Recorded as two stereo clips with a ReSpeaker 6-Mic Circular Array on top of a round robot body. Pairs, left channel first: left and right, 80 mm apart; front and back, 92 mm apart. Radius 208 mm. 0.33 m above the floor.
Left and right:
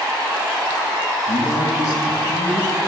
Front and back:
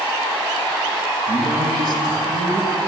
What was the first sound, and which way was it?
A man speaking, 145° left.